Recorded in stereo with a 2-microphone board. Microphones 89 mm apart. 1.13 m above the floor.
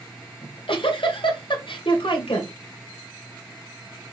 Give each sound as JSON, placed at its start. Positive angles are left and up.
{"t": 0.4, "sound": "a giggle", "side_deg": 75, "distance_m": 1.9}